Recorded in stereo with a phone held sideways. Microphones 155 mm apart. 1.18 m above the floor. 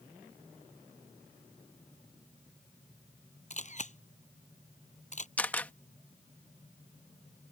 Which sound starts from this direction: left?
A camera shutter, at 3.5 s.